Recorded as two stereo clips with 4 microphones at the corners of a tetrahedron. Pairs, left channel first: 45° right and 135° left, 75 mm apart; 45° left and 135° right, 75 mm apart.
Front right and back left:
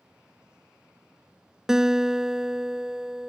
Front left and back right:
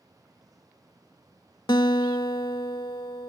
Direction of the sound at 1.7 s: 55° left.